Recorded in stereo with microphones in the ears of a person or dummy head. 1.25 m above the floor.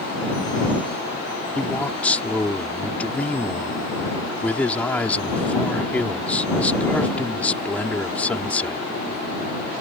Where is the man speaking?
5° left (ahead or behind).